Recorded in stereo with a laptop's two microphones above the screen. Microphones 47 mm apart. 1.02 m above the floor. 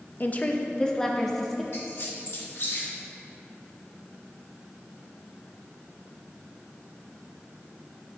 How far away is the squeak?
About 2.0 m.